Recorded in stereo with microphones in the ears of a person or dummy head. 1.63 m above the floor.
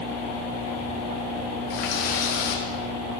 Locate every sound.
1.7 s a running tap: 55° left (ahead or behind), 1.1 m